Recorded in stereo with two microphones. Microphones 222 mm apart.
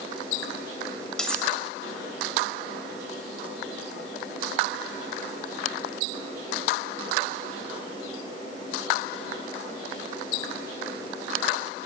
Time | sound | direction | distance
1.2 | cutlery clinking | 5° left (ahead or behind) | 2 m